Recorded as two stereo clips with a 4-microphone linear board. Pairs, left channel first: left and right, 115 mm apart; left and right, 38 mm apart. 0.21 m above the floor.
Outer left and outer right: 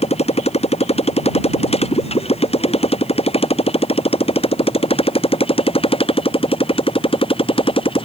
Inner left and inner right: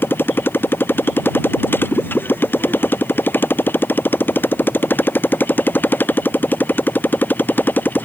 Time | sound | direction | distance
0.0 | a motorcycle | 65° left (ahead or behind) | ?